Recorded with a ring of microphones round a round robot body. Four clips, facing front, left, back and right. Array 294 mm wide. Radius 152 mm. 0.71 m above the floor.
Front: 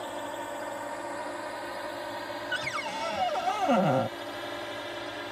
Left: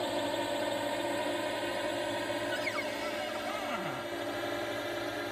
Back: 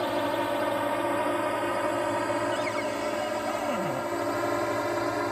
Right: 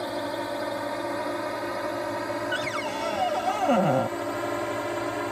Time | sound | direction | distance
0.0 | a drone | 165° right | ?
2.5 | a cupboard door | 60° right | ?